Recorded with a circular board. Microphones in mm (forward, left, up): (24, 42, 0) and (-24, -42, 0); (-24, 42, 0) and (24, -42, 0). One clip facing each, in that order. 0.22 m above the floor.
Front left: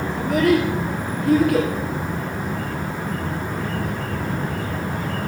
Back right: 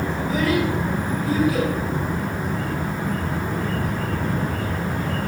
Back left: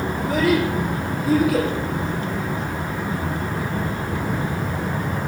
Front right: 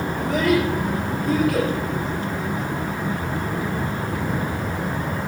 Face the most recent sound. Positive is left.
turn(degrees=35)